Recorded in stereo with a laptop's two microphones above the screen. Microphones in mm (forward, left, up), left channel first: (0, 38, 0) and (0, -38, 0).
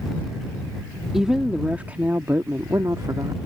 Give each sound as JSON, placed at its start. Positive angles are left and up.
{"t": 1.1, "sound": "a woman speaking", "side_deg": -5}